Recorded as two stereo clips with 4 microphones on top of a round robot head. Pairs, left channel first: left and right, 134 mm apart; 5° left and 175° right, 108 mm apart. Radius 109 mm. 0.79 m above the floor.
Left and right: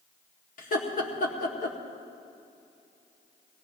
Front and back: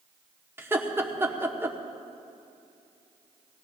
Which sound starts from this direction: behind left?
Laughter, at 0.6 s.